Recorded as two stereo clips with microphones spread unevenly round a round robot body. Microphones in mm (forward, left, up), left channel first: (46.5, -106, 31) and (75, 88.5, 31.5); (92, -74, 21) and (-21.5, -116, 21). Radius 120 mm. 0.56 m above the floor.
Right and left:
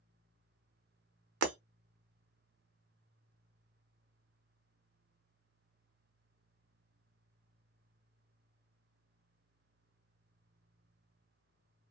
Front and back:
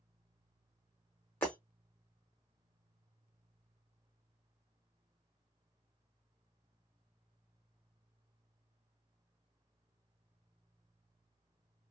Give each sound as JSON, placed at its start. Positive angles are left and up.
{"t": 1.4, "sound": "breaking glass", "azimuth_deg": 100, "distance_m": 0.7}